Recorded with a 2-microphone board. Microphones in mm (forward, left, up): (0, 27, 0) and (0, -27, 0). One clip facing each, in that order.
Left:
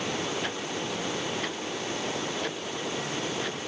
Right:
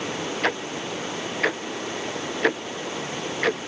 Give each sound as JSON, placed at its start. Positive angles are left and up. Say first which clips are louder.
{"t": 0.4, "sound": "ticking", "louder": "right 6 dB", "side_deg": -85}